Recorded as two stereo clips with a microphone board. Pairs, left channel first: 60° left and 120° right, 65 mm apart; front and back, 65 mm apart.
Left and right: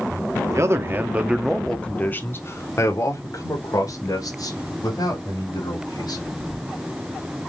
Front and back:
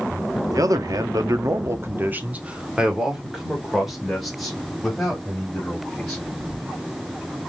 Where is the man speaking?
155° right, 1.3 m; by 6.3 s 85° left, 5 m.